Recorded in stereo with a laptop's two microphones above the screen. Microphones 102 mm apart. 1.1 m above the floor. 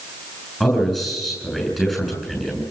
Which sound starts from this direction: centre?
A man speaking, at 0.6 s.